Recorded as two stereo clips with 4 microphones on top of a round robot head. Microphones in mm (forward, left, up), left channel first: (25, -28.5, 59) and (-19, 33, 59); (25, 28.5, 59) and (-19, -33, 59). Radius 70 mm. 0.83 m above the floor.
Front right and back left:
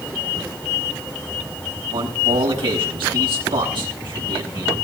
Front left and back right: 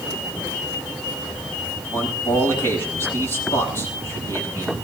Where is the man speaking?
115° left, 7 m.